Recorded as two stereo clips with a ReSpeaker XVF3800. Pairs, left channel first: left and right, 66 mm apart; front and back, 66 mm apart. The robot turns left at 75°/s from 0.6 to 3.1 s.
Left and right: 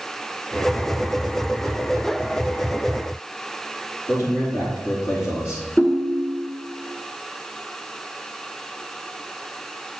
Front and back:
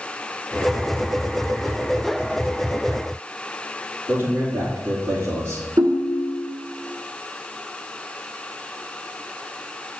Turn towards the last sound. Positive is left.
turn(degrees=150)